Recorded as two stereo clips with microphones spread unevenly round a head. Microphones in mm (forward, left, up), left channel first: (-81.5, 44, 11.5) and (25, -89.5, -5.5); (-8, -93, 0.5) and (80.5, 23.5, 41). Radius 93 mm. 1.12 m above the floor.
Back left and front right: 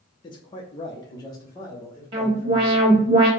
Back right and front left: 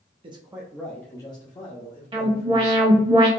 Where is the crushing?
No crushing in this recording.